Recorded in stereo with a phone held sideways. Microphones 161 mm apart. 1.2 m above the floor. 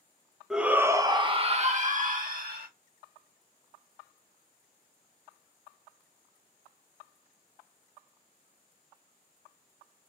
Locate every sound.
0.5 s a shout: centre (ahead or behind), 0.8 m; by 2.7 s 65° right (ahead or behind), 1.3 m